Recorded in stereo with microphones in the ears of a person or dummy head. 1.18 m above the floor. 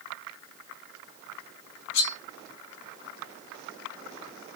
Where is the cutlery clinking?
65° left (ahead or behind), 0.9 m.